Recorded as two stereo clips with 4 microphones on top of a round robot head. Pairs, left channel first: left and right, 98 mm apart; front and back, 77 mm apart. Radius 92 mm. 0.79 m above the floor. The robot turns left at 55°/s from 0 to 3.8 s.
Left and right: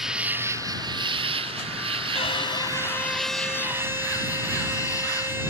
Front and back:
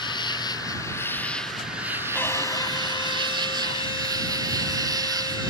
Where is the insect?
5° right; by 5.5 s 150° left.